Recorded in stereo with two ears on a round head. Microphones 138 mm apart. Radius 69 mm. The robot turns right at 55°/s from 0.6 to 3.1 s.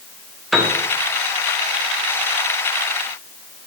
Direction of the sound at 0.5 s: Centre (ahead or behind).